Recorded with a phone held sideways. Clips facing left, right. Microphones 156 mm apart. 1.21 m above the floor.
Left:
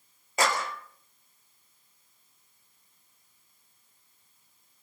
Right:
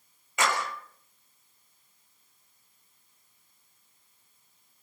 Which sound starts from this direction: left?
A clap, at 0.4 s.